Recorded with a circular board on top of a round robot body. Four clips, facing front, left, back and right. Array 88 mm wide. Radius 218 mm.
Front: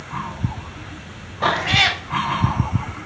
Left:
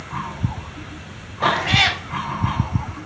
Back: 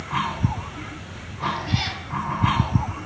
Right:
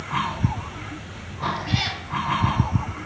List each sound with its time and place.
1.4 s a cat meowing: 45° left, 1.1 m